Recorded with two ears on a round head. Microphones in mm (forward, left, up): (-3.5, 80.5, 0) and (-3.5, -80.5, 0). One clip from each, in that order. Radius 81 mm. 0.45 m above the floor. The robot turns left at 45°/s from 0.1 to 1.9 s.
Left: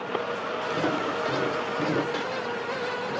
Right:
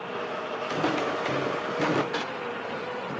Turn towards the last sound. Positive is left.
turn(degrees=-20)  # may be behind; listen again after turning